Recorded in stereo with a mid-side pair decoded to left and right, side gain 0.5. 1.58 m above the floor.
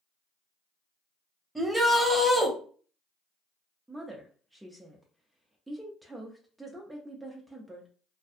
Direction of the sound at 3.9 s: 10° right.